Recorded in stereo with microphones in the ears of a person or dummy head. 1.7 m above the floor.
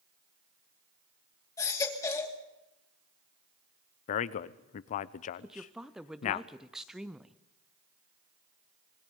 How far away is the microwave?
No microwave in this recording.